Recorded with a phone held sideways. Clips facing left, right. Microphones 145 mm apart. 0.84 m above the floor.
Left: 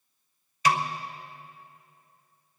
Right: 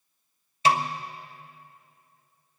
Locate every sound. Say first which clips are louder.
0.7 s a snare drum: right 2 dB; 30° right (ahead or behind), 0.9 m